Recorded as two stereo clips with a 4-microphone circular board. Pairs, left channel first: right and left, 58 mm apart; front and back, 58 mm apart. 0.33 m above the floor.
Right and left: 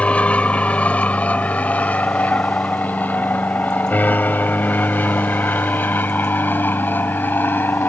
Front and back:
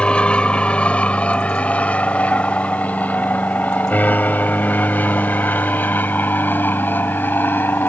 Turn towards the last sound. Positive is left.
turn(degrees=-45)